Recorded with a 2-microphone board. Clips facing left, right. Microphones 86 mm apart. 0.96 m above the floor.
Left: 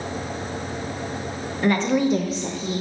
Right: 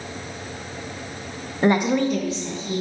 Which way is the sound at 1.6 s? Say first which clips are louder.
Right 1 dB; 30° right (ahead or behind).